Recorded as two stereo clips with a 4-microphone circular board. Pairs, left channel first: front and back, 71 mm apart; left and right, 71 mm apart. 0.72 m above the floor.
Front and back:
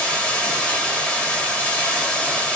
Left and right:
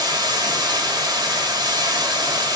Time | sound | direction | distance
0.0 | running water | 75° right | 2.0 m